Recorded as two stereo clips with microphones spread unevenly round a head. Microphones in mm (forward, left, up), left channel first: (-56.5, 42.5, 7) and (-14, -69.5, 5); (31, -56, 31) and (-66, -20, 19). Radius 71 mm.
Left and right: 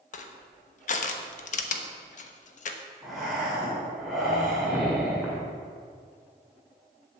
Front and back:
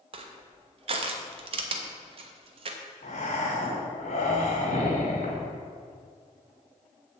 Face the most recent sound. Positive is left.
turn(degrees=20)